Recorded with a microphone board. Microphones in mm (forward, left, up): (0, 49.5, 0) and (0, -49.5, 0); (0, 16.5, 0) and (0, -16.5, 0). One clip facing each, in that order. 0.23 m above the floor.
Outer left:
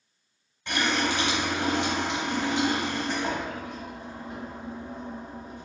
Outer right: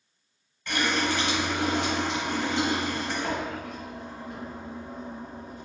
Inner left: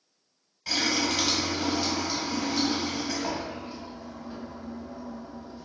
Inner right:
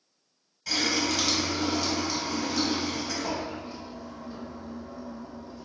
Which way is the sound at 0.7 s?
20° left (ahead or behind).